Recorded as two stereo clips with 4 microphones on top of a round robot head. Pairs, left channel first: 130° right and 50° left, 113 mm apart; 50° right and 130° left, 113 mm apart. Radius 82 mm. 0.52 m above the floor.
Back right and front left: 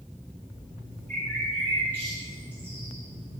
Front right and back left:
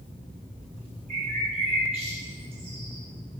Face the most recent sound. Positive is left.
turn(degrees=160)